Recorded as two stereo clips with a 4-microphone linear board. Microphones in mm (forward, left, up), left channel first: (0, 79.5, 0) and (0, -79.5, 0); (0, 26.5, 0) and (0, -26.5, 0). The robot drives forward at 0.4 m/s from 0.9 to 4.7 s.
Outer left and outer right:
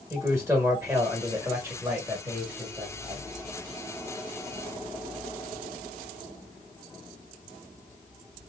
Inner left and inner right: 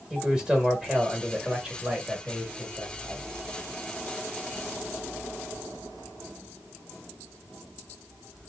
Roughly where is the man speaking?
Centre.